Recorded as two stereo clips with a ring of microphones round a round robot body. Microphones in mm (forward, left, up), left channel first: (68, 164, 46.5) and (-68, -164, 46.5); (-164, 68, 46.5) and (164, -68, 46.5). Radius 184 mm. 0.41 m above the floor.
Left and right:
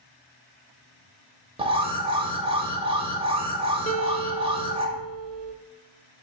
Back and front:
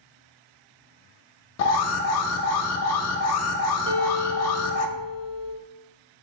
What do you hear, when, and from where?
1.6 s an alarm: straight behind, 0.6 m
3.9 s a guitar: 100° right, 0.5 m